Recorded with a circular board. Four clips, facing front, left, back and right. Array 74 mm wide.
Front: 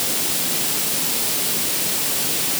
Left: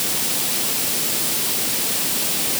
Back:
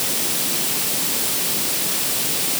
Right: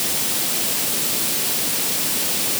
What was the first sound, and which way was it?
Only background noise.